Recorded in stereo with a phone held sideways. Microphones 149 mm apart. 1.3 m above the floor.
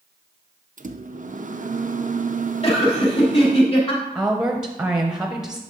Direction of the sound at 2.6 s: 40° left (ahead or behind).